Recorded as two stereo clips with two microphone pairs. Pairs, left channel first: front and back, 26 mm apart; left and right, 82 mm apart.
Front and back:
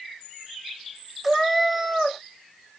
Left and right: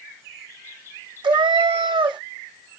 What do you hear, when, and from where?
1.2 s a cat meowing: 95° right, 0.6 m